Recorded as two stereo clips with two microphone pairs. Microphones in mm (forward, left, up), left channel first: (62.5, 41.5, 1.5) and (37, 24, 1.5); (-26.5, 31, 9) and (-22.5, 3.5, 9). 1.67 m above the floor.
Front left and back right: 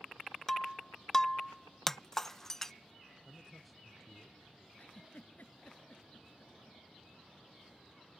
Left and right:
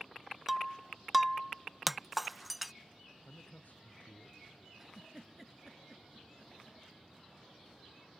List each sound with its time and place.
0.5 s breaking glass: straight ahead
3.2 s a man speaking: 120° left
4.8 s a giggle: straight ahead